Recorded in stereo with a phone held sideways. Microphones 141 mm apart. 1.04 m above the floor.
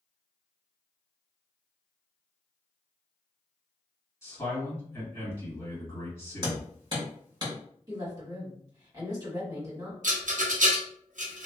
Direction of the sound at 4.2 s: 20° left (ahead or behind).